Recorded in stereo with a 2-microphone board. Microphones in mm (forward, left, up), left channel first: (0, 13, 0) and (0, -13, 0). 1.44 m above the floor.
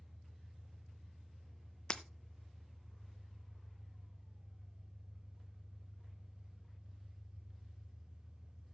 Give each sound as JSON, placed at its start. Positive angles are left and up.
{"t": 0.0, "sound": "an engine running", "side_deg": -55, "distance_m": 2.5}
{"t": 1.9, "sound": "breaking glass", "side_deg": 35, "distance_m": 0.6}